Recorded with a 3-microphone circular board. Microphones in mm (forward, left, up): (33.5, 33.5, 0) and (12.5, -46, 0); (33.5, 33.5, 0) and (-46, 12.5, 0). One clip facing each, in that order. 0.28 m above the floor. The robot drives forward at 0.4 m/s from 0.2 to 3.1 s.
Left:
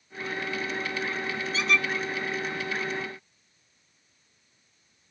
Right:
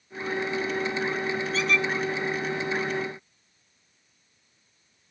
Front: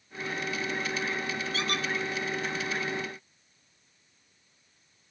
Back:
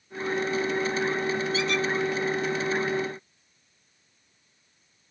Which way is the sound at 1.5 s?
15° right.